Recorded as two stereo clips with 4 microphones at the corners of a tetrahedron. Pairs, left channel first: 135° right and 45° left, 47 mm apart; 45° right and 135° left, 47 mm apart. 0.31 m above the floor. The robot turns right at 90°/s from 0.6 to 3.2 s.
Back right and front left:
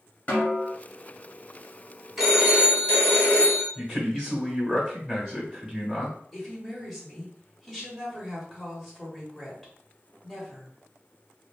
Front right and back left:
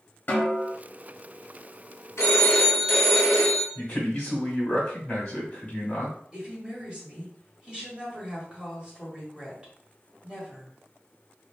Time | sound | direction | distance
0.3 | a snare drum | 85° right | 1.5 m
2.2 | a phone ringing | 40° right | 1.4 m
3.8 | a man speaking | 5° right | 1.1 m
6.3 | a woman speaking | 130° left | 1.0 m